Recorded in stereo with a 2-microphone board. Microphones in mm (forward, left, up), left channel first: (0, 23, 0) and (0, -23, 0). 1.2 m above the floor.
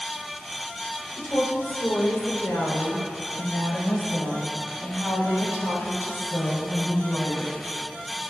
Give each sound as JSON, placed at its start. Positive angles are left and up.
{"t": 1.1, "sound": "a woman speaking", "side_deg": 30, "distance_m": 3.5}